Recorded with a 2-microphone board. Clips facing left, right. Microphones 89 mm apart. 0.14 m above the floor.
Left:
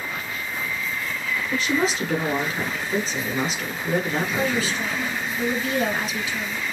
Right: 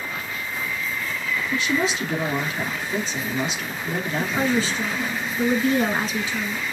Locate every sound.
1.5 s a woman speaking: 35° left (ahead or behind), 1.8 m
4.2 s a woman speaking: 30° right (ahead or behind), 1.7 m